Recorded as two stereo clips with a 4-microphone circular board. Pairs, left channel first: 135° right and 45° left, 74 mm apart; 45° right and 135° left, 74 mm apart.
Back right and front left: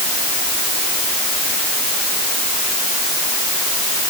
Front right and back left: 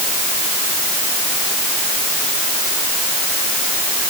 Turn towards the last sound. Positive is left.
No sound to turn to.